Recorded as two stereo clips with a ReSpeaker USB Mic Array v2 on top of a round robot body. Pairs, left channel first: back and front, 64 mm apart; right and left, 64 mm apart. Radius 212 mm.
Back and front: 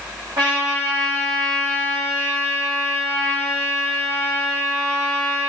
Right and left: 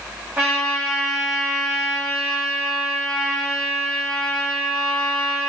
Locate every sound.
0.4 s a trumpet: 25° left, 1.2 m